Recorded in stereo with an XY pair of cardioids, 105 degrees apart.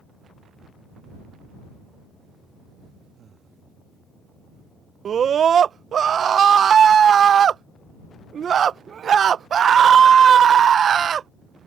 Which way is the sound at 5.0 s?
45° right.